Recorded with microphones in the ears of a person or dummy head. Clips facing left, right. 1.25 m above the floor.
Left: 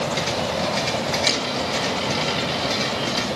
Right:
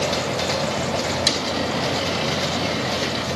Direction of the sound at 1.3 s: 5° right (ahead or behind).